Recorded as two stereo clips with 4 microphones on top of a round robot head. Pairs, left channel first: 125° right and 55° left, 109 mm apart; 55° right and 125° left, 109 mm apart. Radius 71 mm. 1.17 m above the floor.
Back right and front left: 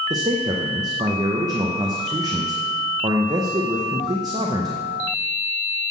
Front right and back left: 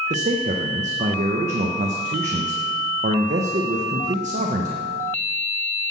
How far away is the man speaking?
About 0.7 m.